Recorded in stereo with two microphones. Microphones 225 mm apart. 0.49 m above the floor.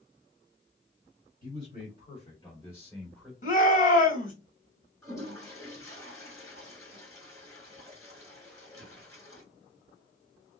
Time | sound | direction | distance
1.4 | a man speaking | 40° left (ahead or behind) | 2 m
3.4 | a shout | 35° left (ahead or behind) | 2.5 m
5.0 | a toilet flushing | 15° left (ahead or behind) | 3 m